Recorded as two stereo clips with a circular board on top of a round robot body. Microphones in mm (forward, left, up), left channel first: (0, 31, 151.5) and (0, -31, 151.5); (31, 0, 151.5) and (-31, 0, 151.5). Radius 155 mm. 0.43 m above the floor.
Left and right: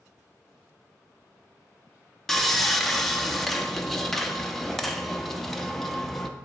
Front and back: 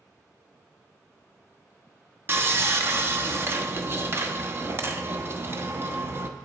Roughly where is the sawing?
Behind.